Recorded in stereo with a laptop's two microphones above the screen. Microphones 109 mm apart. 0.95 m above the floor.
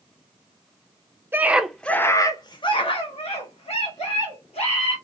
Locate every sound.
1.3 s a scream: 20° right (ahead or behind), 0.6 m; by 5.0 s 80° left, 1.9 m